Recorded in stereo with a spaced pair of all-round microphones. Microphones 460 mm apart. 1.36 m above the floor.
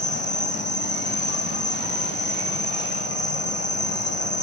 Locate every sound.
0.0 s an insect: 25° left (ahead or behind), 1.0 m